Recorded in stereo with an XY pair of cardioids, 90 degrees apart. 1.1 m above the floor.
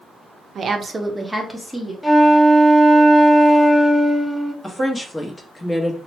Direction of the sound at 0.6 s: 55° right.